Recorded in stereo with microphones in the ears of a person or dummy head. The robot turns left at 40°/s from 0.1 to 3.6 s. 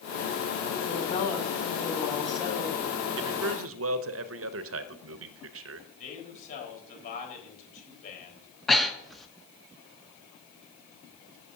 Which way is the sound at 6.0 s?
45° left (ahead or behind).